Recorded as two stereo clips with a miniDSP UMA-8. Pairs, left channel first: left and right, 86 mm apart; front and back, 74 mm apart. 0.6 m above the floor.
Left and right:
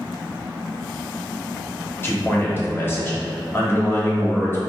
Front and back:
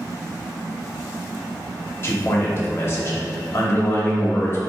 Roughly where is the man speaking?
Ahead left.